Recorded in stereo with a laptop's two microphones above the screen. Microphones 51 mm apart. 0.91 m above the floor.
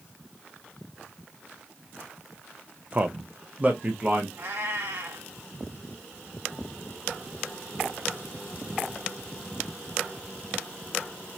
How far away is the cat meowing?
About 1.6 m.